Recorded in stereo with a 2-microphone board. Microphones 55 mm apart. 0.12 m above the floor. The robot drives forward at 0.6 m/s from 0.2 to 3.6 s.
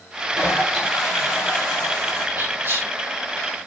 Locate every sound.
0.3 s a toilet flushing: 25° left (ahead or behind), 6.5 m; by 2.3 s 20° left (ahead or behind), 7.5 m
2.4 s whispering: 40° right (ahead or behind), 3 m; by 2.9 s 35° right (ahead or behind), 3 m